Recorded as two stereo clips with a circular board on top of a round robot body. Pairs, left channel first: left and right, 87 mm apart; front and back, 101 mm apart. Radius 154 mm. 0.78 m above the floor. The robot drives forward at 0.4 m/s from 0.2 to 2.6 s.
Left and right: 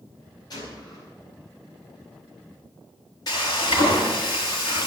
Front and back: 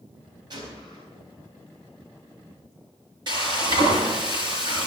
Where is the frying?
135° left, 6 m.